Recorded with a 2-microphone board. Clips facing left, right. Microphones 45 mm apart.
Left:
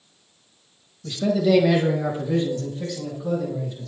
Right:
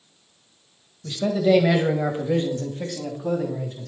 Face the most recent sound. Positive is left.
turn(degrees=-55)  # may be behind; listen again after turning